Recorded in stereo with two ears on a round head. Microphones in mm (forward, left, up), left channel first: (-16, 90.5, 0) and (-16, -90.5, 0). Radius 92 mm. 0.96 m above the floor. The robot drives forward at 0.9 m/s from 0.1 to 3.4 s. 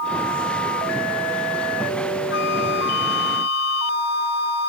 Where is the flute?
65° left (ahead or behind); by 4.7 s 60° left (ahead or behind).